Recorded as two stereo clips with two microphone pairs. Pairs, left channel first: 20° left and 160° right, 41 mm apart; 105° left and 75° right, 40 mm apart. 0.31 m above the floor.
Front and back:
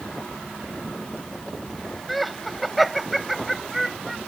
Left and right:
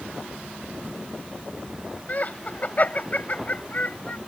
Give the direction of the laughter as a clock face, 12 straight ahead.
8 o'clock.